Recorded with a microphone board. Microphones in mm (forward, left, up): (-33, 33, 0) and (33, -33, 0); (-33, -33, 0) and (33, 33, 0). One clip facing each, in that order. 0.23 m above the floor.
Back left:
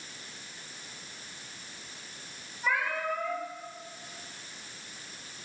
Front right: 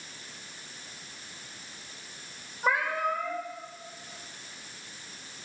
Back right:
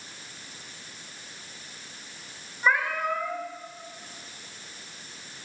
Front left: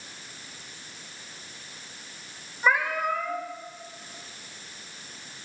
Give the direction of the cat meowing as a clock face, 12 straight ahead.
1 o'clock.